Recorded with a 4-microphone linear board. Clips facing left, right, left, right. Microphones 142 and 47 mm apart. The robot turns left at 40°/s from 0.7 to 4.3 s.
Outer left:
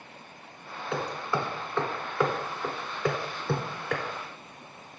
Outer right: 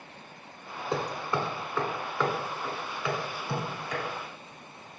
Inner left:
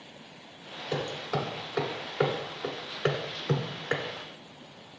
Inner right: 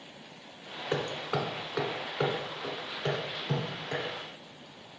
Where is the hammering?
40° right (ahead or behind), 1.3 m; by 4.0 s 80° left, 1.3 m.